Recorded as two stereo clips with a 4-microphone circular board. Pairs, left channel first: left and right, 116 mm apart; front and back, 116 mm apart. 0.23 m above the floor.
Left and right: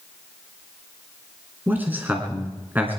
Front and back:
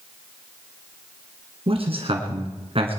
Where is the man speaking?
160° right, 2.5 m.